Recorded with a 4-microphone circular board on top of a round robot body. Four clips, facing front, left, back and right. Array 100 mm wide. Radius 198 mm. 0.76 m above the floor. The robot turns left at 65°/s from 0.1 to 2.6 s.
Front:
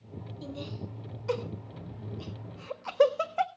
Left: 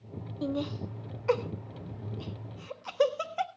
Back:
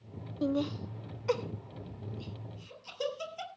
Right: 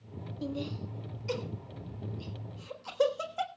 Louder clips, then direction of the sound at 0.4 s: Left 4 dB, back 10 dB; 155° left.